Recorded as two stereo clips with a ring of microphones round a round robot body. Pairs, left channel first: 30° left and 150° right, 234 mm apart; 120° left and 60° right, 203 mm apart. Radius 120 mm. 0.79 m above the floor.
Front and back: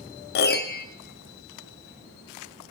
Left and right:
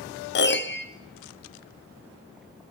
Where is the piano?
80° left, 0.5 m.